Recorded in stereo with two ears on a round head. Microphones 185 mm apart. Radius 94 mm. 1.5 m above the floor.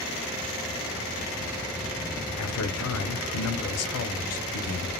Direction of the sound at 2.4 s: 80° left.